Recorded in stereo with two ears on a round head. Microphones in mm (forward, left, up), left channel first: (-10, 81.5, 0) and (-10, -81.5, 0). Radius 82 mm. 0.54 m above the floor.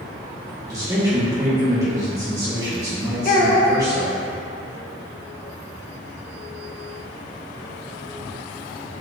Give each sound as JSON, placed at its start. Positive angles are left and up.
{"t": 0.7, "sound": "a man speaking", "side_deg": -20, "distance_m": 1.1}
{"t": 3.2, "sound": "a child speaking", "side_deg": 50, "distance_m": 0.7}